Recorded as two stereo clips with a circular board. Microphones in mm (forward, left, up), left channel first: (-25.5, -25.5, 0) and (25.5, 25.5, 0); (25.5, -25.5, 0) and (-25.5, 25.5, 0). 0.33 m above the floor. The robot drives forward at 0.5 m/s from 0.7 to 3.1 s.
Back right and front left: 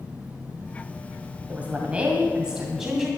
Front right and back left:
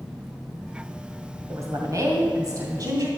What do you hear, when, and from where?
1.5 s a woman speaking: 105° left, 1.9 m; by 3.1 s 130° left, 2 m